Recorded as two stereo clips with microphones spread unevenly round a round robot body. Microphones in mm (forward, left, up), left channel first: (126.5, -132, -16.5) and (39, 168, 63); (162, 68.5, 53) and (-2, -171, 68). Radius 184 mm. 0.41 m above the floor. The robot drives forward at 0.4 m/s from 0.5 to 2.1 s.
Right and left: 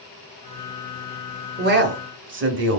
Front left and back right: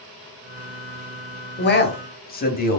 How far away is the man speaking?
About 1.0 m.